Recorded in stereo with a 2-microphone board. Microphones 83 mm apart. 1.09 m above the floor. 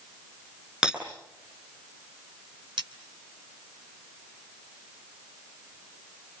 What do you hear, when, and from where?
0.8 s breaking glass: 10° right (ahead or behind), 8 m
2.8 s cutlery clinking: 85° right, 2.5 m